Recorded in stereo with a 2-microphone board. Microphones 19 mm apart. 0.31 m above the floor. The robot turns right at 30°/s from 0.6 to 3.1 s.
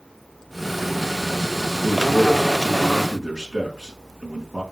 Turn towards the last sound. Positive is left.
turn(degrees=-50)